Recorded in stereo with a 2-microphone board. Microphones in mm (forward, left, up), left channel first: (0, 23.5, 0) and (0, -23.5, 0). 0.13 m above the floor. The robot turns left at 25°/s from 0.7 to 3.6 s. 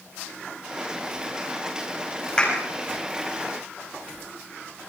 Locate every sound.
2.4 s a clap: 20° left (ahead or behind), 7 m; by 2.6 s 25° left (ahead or behind), 7 m